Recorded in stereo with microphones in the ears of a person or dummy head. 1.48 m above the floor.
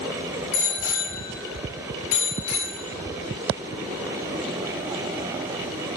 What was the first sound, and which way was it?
A bicycle bell, 70° left (ahead or behind).